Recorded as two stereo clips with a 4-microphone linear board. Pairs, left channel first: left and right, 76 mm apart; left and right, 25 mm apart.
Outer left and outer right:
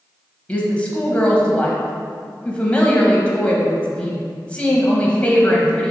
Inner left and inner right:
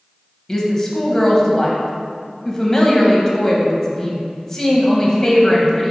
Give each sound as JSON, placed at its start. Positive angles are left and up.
{"t": 0.5, "sound": "a woman speaking", "side_deg": 15, "distance_m": 1.0}